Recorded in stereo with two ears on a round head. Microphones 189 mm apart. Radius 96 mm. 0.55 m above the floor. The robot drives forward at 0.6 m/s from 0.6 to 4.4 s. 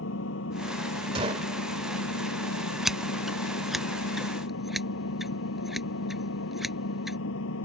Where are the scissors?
Centre (ahead or behind).